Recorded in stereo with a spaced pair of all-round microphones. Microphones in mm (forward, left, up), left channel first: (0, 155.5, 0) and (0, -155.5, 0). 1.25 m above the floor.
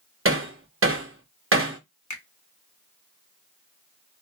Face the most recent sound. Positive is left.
turn(degrees=65)  # may be behind; listen again after turning